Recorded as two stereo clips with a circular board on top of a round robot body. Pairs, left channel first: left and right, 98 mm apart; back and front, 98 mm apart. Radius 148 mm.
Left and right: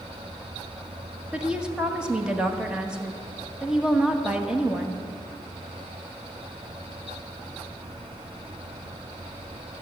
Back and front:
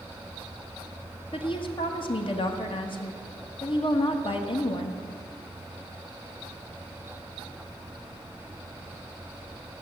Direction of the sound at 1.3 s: 170° right.